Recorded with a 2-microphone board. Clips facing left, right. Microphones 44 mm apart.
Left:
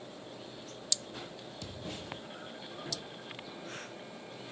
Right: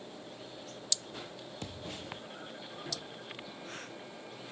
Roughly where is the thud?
Right.